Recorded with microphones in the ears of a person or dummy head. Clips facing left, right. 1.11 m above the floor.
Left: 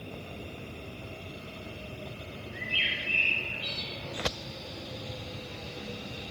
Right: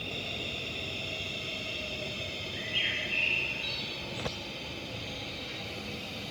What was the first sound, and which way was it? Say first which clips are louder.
A bird: right 1 dB; 65° left (ahead or behind).